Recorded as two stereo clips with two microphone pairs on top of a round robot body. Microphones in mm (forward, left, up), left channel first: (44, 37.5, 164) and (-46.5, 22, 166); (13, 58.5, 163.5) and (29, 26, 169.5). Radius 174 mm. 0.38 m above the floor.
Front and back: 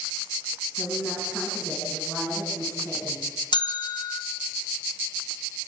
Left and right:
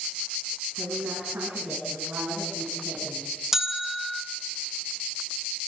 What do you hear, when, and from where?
0.8 s a woman speaking: 65° right, 8 m; by 3.4 s 60° right, 6 m
3.5 s a bell: 20° left, 1.6 m